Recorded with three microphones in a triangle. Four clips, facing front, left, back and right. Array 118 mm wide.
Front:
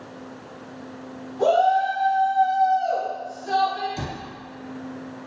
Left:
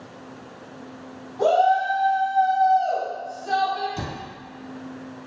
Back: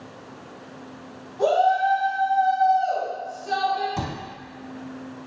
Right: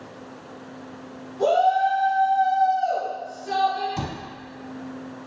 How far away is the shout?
About 1.6 m.